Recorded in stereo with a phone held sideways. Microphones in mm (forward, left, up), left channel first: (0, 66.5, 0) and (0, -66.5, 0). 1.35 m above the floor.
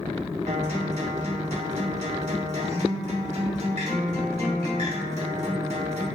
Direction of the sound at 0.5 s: 55° right (ahead or behind).